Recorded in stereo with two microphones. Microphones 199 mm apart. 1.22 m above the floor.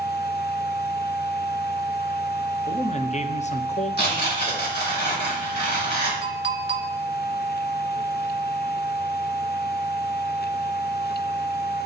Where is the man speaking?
35° left (ahead or behind), 0.6 m.